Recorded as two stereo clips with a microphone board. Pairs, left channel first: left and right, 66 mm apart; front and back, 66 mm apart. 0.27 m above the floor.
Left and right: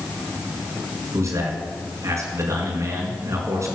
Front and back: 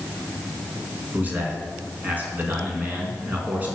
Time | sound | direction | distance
1.1 | a man speaking | 120° right | 3.5 m